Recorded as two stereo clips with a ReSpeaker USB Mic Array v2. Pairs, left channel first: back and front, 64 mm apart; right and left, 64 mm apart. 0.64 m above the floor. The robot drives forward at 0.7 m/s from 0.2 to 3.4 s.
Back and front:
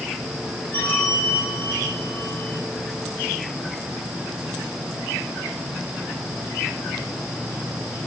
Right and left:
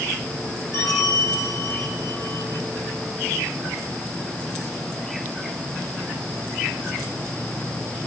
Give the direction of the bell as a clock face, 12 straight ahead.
4 o'clock.